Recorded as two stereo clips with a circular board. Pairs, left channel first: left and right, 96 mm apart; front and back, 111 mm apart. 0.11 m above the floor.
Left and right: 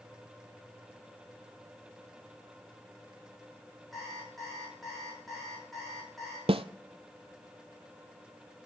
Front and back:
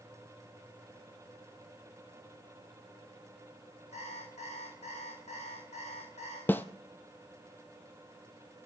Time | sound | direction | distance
3.9 | an alarm clock | straight ahead | 5 m
6.5 | a snare drum | 75° right | 0.5 m